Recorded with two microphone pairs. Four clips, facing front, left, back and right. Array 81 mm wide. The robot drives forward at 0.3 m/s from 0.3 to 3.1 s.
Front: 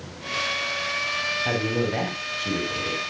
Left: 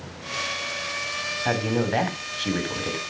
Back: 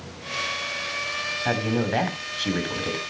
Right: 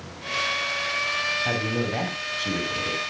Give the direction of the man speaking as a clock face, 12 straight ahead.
8 o'clock.